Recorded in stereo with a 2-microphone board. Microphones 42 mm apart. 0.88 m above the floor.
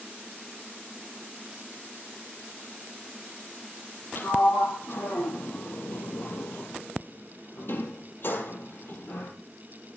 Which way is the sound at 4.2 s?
60° left (ahead or behind).